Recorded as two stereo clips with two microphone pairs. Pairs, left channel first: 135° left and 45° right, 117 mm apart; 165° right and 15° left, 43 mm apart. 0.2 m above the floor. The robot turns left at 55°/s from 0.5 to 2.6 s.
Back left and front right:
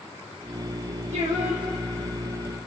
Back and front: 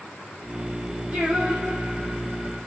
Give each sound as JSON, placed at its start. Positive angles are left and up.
{"t": 1.1, "sound": "singing", "azimuth_deg": -50, "distance_m": 6.0}